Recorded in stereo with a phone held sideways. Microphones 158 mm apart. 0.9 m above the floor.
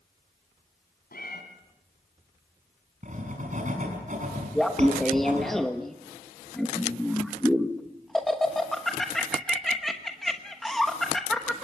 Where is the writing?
50° right (ahead or behind), 6 m.